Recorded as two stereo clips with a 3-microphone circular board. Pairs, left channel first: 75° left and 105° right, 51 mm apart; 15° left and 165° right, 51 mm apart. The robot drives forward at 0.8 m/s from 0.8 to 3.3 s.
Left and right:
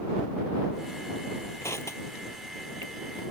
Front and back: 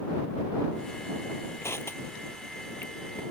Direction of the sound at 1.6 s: 50° left.